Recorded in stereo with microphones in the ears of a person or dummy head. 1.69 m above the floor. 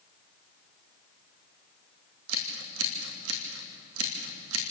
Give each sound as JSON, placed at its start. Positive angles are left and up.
{"t": 2.3, "sound": "scissors", "side_deg": -75, "distance_m": 3.0}